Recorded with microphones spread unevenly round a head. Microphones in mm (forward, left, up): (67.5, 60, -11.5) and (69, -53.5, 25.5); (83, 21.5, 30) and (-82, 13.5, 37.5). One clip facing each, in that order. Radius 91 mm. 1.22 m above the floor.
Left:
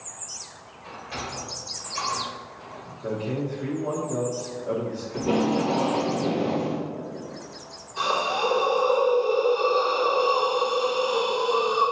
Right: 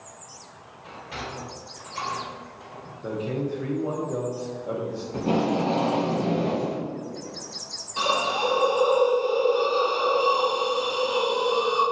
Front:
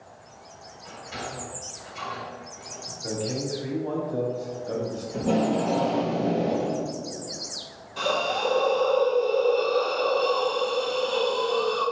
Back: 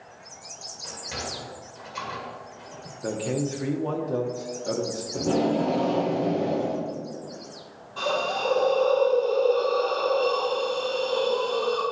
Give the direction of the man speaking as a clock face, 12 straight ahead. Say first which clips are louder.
Even, back 2 dB; 6 o'clock.